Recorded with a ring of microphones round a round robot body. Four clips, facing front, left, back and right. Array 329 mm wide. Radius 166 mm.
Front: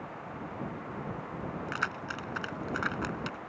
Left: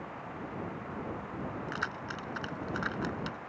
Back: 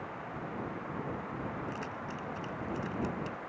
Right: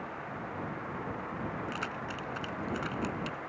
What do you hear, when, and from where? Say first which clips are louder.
1.7 s keys jangling: even, front 4 dB; 10° left